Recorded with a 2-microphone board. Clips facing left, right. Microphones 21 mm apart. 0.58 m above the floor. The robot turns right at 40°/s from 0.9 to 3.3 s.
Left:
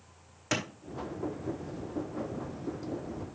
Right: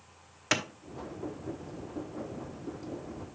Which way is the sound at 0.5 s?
30° right (ahead or behind).